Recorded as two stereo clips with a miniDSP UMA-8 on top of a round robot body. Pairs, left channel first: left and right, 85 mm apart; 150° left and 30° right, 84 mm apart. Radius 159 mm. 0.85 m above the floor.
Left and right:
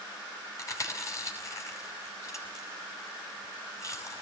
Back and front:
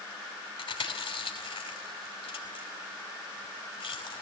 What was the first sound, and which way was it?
Chewing, 145° left.